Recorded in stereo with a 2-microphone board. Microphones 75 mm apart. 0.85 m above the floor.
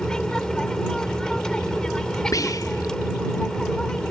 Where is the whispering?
50° left (ahead or behind).